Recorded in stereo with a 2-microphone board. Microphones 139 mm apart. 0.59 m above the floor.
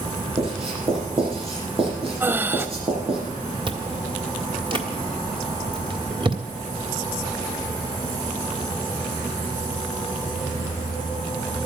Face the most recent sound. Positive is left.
turn(degrees=-35)  # may be behind; listen again after turning